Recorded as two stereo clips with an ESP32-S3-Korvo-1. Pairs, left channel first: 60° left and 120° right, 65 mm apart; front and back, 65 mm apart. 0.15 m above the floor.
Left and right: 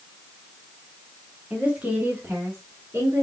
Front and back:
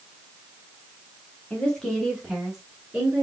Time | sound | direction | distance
1.5 | a woman speaking | 55° right | 1.6 m